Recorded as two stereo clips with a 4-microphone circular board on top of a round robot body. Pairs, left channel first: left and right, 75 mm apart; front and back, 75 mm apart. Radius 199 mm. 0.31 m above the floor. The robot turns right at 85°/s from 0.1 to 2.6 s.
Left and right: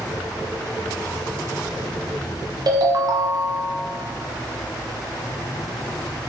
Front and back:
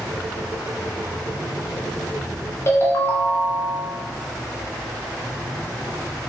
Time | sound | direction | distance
2.7 | a ringtone | 55° right | 0.6 m